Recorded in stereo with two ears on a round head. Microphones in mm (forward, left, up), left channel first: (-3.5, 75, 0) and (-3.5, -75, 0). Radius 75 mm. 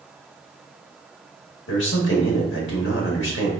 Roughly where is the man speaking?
Left.